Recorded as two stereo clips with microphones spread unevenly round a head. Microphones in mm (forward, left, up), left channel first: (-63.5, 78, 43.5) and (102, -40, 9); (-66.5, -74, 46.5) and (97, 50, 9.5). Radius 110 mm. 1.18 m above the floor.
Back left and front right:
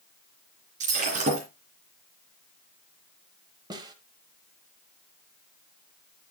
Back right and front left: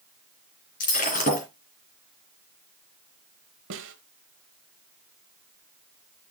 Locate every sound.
0.8 s breaking glass: 95° right, 3 m
3.7 s a snare drum: 35° left, 1.2 m